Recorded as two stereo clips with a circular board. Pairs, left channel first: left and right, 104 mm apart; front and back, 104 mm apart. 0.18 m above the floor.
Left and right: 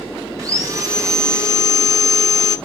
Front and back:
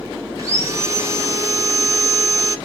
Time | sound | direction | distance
0.4 | sawing | 135° right | 0.8 m